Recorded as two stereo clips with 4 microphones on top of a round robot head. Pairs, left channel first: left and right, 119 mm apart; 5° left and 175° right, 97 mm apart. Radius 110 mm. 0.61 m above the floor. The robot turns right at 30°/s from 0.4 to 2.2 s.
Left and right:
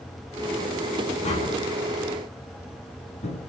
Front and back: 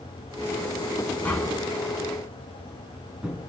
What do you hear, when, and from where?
1.2 s tapping: 75° left, 7.5 m; by 3.4 s 105° left, 7.5 m